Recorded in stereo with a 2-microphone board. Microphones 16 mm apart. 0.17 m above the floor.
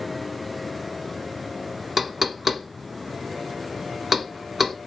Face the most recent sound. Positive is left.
turn(degrees=-15)  # may be behind; listen again after turning